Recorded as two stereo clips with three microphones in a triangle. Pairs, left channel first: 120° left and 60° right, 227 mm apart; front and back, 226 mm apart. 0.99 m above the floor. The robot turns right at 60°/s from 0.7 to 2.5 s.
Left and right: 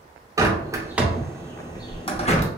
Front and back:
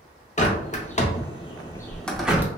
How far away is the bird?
About 0.6 m.